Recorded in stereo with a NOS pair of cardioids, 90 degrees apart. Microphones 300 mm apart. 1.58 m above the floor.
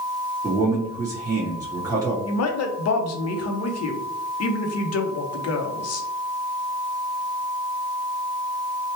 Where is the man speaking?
10° right, 1.5 m.